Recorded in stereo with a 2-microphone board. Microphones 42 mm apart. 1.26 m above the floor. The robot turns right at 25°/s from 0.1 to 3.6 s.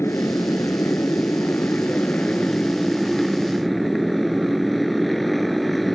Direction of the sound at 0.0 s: 90° left.